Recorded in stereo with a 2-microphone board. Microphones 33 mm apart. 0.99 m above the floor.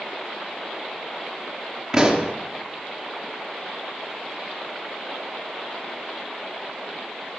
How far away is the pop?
About 3.5 m.